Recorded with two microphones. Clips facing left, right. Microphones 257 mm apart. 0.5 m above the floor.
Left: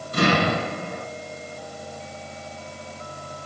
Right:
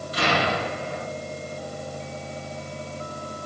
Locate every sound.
0.1 s an explosion: 50° left (ahead or behind), 7.5 m